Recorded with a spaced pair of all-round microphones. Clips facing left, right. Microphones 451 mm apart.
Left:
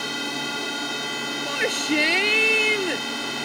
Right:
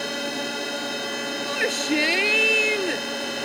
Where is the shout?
Centre (ahead or behind).